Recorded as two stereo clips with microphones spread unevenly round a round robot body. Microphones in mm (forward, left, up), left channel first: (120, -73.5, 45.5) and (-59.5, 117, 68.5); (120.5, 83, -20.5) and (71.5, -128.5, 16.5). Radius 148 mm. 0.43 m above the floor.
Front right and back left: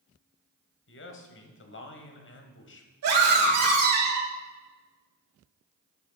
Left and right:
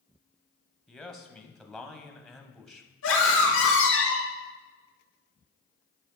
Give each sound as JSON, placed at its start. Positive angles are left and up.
{"t": 0.9, "sound": "a man speaking", "azimuth_deg": -10, "distance_m": 2.0}
{"t": 3.0, "sound": "a scream", "azimuth_deg": 110, "distance_m": 3.5}